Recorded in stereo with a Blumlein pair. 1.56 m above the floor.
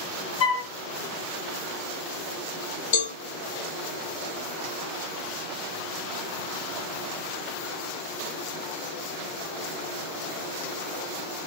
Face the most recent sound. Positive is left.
turn(degrees=55)